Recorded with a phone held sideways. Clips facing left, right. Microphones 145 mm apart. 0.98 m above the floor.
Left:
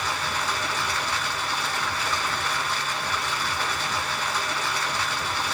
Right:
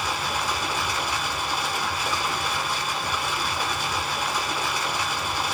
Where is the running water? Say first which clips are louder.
Right 1 dB; 15° right (ahead or behind), 0.9 m.